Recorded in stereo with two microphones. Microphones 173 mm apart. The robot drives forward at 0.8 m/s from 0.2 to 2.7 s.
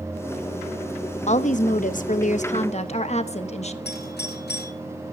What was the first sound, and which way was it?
A woman speaking, 40° left (ahead or behind).